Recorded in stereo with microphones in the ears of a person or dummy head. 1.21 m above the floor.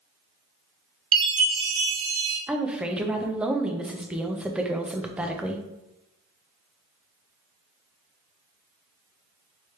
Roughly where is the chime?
Right.